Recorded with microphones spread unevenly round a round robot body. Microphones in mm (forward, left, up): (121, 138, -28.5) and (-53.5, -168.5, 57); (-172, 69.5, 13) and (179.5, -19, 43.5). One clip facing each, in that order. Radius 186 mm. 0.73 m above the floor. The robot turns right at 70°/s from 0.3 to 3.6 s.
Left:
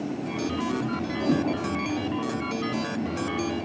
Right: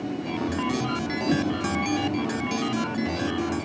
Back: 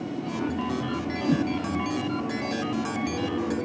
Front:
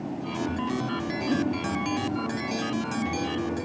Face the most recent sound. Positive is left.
turn(degrees=-65)